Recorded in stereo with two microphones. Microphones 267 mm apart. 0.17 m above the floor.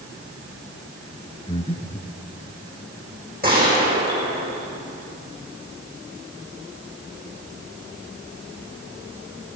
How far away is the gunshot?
About 8 m.